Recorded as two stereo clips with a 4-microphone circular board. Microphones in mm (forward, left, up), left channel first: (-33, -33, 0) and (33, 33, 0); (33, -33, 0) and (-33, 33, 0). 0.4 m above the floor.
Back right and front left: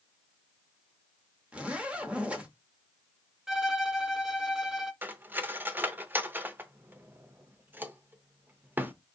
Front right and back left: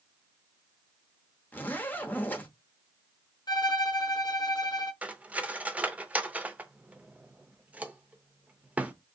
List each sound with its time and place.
1.5 s a zipper: 15° right, 0.7 m
3.5 s a violin: 40° right, 0.5 m
5.0 s cutlery clinking: 80° left, 0.5 m